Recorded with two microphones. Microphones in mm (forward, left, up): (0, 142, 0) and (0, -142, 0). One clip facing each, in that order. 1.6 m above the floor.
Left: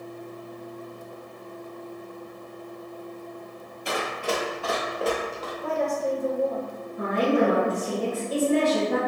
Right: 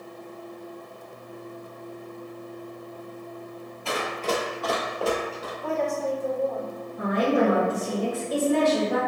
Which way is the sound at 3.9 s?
20° left (ahead or behind).